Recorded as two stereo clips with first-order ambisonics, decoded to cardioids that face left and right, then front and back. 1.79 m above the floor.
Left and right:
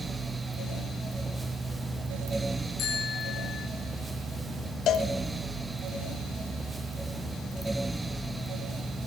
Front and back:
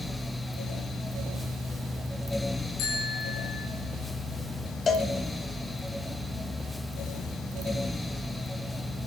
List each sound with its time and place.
2.8 s a bicycle bell: 35° left, 5.5 m
4.9 s a cowbell: 60° left, 1.2 m